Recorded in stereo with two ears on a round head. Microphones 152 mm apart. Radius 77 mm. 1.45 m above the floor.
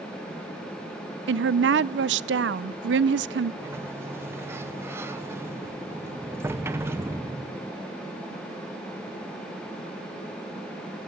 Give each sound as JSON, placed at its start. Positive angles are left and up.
{"t": 1.3, "sound": "a woman speaking", "side_deg": -75, "distance_m": 0.6}
{"t": 3.6, "sound": "a sliding door", "side_deg": -15, "distance_m": 1.1}